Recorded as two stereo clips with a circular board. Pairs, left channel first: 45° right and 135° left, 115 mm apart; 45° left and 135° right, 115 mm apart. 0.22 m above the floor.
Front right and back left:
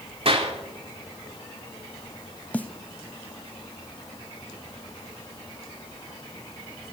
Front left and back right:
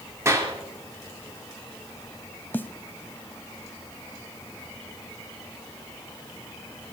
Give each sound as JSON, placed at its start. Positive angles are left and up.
{"t": 0.2, "sound": "a clap", "azimuth_deg": 160, "distance_m": 3.5}
{"t": 2.5, "sound": "a snare drum", "azimuth_deg": 5, "distance_m": 0.6}